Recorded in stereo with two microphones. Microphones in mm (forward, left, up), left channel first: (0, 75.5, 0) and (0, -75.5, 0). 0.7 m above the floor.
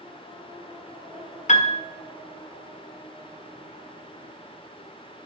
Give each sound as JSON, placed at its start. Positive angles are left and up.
{"t": 1.5, "sound": "a piano", "side_deg": 50, "distance_m": 0.6}